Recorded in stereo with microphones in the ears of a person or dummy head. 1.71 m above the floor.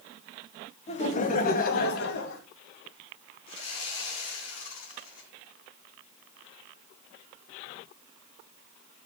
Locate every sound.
0.9 s laughter: 35° left (ahead or behind), 1.5 m; by 2.4 s 65° left (ahead or behind), 2.5 m
3.5 s sawing: 45° left (ahead or behind), 3.5 m